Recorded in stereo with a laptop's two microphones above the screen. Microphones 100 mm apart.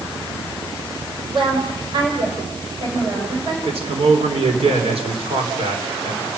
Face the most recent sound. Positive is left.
turn(degrees=-75)  # may be behind; listen again after turning